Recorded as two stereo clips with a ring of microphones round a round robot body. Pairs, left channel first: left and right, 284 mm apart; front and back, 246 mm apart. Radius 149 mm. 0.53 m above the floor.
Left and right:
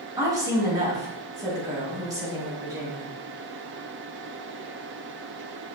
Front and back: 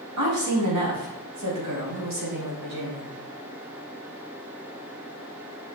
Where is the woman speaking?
170° right, 4 m.